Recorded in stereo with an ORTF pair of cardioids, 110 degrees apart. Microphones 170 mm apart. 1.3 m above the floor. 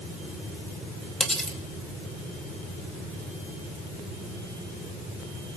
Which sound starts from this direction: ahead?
Cutlery clinking, at 1.2 s.